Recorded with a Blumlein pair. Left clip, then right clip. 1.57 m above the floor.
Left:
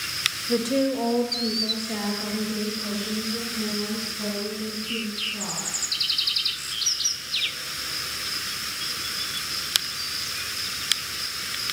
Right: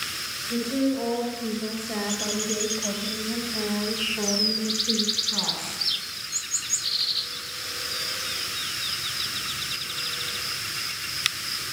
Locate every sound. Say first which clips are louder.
0.5 s a woman speaking: left 1 dB; 30° left, 2 m; by 5.8 s 50° right, 5.5 m